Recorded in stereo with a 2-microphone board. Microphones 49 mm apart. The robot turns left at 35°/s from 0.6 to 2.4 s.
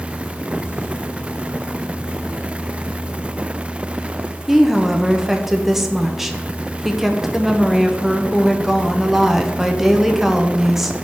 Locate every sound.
4.5 s a woman speaking: 5° right (ahead or behind), 0.5 m